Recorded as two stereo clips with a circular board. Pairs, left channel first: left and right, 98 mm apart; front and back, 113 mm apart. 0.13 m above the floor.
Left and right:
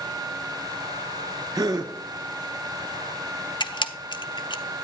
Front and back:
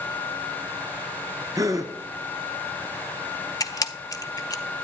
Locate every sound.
1.6 s a gasp: 125° right, 0.8 m
3.6 s a camera shutter: 55° left, 0.6 m